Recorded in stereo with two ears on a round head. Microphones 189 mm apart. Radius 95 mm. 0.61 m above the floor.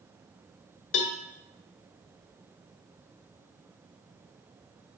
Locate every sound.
0.9 s a cowbell: 60° left (ahead or behind), 1.0 m